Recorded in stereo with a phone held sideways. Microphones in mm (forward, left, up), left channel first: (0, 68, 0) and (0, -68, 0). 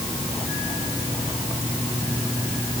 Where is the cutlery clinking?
I don't hear cutlery clinking.